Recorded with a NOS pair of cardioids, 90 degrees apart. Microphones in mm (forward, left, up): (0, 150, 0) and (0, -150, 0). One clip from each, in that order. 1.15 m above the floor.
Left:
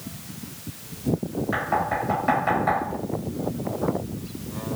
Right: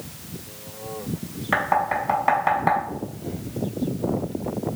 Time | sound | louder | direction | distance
1.5 | knocking | right 4 dB | 55° right | 1.3 m